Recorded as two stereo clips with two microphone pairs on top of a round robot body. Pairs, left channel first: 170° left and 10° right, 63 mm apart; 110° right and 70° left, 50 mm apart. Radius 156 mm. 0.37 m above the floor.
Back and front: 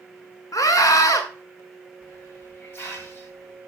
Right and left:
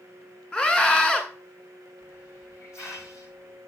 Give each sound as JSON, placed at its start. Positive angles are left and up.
{"t": 0.5, "sound": "a scream", "azimuth_deg": 175, "distance_m": 1.8}
{"t": 2.0, "sound": "a hiss", "azimuth_deg": -135, "distance_m": 3.0}